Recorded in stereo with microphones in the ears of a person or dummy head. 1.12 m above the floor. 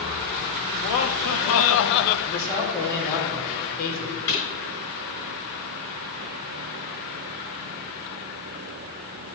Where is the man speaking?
50° left (ahead or behind), 4 m.